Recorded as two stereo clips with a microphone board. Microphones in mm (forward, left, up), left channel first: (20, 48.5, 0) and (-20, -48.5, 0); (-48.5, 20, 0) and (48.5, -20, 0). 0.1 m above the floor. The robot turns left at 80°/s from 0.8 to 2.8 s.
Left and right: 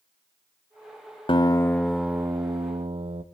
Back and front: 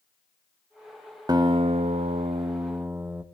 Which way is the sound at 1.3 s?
30° left.